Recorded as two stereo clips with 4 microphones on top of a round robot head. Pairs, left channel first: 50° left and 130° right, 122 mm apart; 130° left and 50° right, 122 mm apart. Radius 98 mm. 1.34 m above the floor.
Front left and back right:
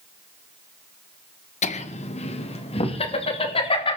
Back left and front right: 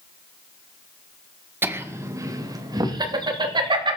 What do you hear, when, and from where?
1.6 s laughter: 25° left, 1.6 m; by 4.0 s 5° left, 3.5 m